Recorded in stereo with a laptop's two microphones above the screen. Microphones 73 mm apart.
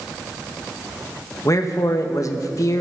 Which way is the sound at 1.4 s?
50° left (ahead or behind).